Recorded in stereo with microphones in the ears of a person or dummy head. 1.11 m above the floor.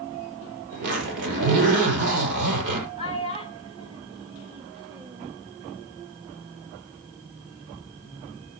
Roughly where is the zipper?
Right.